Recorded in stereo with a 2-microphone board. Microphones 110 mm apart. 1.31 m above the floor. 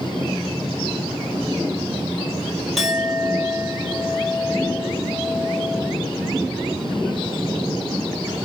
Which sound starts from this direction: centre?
A clink, at 2.8 s.